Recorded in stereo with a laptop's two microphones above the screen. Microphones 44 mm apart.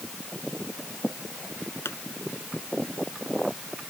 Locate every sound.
1.9 s a pop: 80° left